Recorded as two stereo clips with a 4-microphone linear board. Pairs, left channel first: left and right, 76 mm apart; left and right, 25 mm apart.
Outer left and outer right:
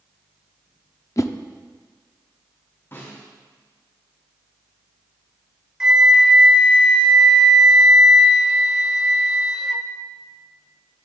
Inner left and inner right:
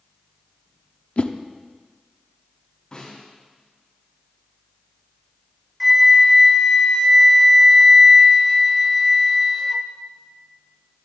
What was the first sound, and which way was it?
A whoosh, 45° left (ahead or behind).